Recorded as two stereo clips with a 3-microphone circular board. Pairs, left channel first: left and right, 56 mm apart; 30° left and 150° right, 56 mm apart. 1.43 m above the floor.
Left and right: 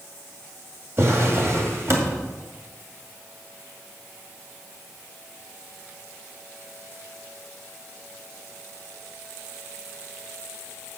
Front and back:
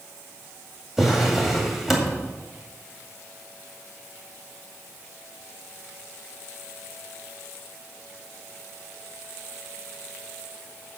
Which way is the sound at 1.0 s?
65° right.